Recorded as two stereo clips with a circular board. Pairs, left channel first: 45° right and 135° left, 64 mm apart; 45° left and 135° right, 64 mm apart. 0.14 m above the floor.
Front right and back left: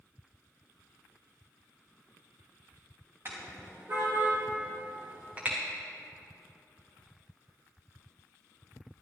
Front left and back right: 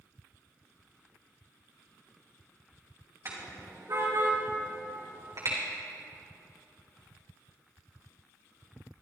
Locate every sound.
3.2 s a car horn: 175° right, 7 m; by 5.6 s 160° right, 5.5 m